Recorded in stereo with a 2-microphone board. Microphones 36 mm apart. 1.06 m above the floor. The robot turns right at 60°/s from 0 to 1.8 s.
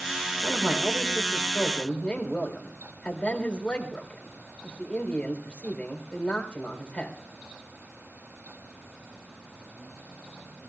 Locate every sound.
0.4 s a man speaking: 45° right, 3.5 m; by 7.2 s 35° left, 3.5 m